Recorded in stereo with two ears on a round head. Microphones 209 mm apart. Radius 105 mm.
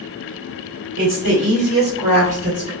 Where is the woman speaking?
55° right (ahead or behind), 1.9 m; by 2.7 s 25° right (ahead or behind), 2 m.